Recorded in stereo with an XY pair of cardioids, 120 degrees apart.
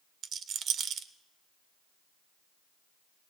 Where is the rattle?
50° right, 0.8 m.